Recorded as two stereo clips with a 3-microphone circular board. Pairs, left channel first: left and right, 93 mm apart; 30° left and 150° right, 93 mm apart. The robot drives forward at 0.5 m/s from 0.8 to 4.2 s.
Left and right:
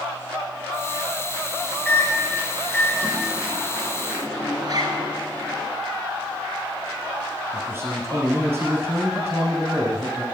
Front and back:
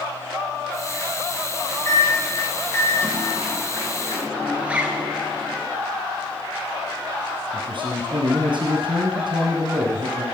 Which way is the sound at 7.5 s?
160° right.